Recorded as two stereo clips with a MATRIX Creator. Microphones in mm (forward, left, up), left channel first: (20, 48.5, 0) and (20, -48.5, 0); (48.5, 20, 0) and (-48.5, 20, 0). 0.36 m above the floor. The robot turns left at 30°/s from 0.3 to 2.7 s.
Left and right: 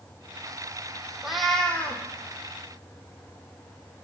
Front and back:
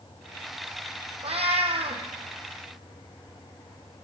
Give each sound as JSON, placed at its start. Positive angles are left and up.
{"t": 1.2, "sound": "a cat meowing", "azimuth_deg": -175, "distance_m": 1.6}